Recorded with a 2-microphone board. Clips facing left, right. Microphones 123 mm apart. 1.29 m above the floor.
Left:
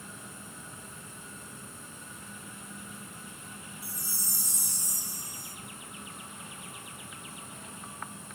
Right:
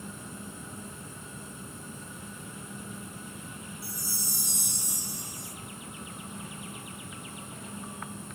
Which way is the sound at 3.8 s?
70° right (ahead or behind).